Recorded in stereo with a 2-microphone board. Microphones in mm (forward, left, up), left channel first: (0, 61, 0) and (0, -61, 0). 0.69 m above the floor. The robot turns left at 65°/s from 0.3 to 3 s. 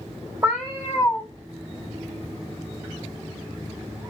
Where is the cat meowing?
165° right, 1.5 m; by 1.3 s 140° left, 1.5 m.